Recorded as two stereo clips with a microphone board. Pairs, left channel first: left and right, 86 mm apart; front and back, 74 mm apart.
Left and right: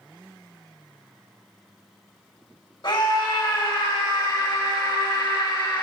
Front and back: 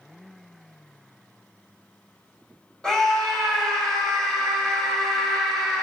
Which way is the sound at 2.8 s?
80° left.